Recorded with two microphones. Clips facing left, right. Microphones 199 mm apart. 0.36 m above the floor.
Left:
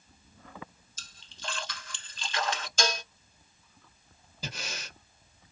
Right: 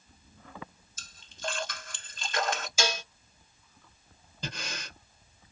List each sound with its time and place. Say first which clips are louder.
1.0 s a splash: right 7 dB; 50° right (ahead or behind), 0.9 m
2.8 s dishes clattering: left 2 dB; 5° right (ahead or behind), 1.2 m
4.4 s breathing: right 1 dB; 5° left (ahead or behind), 1.4 m